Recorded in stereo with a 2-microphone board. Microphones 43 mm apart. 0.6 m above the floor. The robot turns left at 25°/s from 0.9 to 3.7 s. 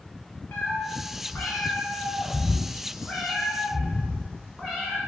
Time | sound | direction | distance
0.5 | a cat meowing | 60° left | 1.0 m